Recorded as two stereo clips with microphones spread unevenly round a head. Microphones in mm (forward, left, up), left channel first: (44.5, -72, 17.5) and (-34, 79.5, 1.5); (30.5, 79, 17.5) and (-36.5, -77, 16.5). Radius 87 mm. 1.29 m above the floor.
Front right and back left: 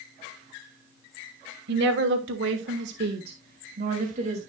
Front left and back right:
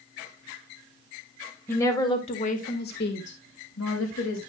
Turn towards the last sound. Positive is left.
turn(degrees=65)